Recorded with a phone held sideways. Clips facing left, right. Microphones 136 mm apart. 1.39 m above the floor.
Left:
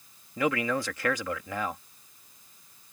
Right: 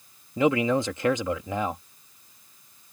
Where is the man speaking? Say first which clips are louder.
Right 6 dB; 25° right (ahead or behind).